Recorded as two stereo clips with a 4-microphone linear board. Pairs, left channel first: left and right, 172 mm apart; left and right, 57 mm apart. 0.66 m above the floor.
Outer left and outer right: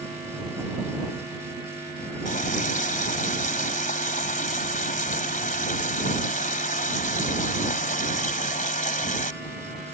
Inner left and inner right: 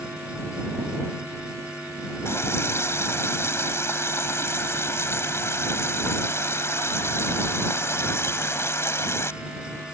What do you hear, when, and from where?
2.2 s a running tap: 50° left (ahead or behind)